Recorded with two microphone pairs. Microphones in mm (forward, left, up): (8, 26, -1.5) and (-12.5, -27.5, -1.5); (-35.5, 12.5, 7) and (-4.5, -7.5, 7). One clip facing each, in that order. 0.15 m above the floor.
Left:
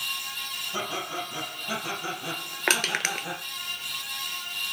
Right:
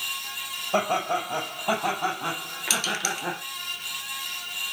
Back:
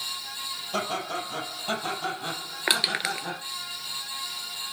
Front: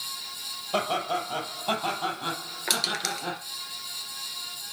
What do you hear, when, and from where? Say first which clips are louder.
0.7 s laughter: right 9 dB, front 3 dB; 105° right, 5 m; by 3.4 s 100° right, 6.5 m
2.7 s crushing: left 2 dB, back 3 dB; 100° left, 0.9 m